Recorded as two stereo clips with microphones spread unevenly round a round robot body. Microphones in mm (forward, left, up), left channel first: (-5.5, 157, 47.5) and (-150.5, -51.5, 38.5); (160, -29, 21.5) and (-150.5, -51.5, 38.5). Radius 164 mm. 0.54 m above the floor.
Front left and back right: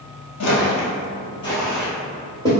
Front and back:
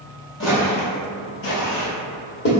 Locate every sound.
0.4 s footsteps: 60° left, 1.1 m; by 2.5 s 40° right, 1.4 m